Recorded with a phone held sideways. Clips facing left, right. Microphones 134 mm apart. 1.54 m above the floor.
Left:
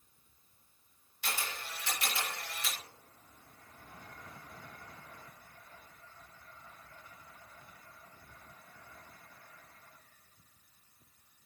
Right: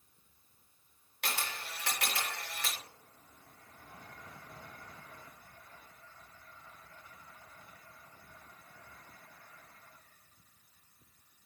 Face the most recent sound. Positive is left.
turn(degrees=-75)  # may be behind; listen again after turning